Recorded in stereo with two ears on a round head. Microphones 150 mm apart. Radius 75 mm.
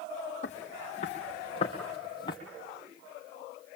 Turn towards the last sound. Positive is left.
turn(degrees=25)  # may be behind; listen again after turning